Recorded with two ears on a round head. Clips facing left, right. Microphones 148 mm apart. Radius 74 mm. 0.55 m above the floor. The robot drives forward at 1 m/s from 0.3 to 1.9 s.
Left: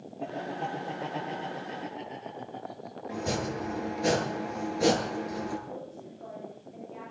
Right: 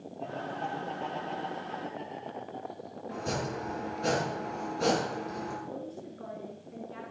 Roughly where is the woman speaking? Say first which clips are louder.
Right 1 dB; right.